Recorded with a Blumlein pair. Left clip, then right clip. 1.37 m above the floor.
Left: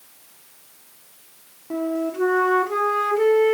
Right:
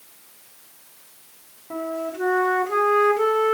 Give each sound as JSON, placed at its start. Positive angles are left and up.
{"t": 1.7, "sound": "a flute", "azimuth_deg": 5, "distance_m": 1.0}